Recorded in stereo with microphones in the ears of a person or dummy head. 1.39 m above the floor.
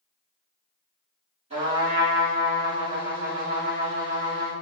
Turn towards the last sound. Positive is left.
turn(degrees=-30)  # may be behind; listen again after turning